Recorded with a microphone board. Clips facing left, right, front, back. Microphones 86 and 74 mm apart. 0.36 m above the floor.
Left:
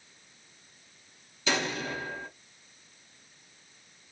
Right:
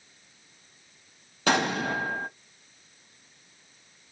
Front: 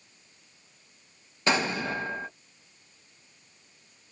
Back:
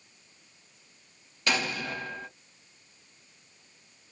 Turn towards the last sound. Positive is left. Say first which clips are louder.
# right 6 dB, front 4 dB
turn(degrees=-65)